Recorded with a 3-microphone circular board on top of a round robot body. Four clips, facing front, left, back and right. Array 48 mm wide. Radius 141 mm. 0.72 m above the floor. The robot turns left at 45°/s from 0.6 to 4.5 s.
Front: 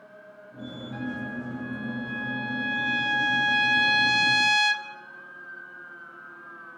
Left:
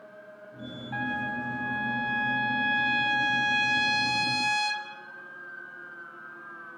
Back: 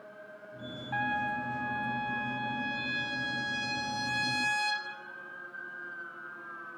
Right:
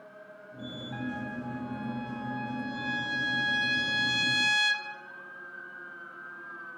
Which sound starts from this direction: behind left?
A trumpet, at 0.9 s.